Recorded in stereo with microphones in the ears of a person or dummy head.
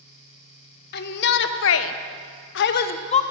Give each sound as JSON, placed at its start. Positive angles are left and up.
{"t": 0.9, "sound": "a shout", "side_deg": 50, "distance_m": 1.3}